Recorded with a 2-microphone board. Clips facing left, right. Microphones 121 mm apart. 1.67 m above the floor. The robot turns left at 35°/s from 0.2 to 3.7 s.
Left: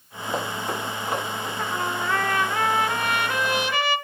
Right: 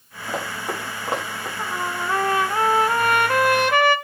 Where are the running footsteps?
5° left (ahead or behind), 5.5 m; by 1.5 s 40° right (ahead or behind), 6.5 m.